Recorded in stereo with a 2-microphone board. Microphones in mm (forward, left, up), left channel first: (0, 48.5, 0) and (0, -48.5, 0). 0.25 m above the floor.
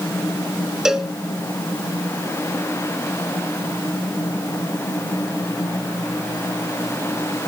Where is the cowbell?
5° right (ahead or behind), 0.7 m.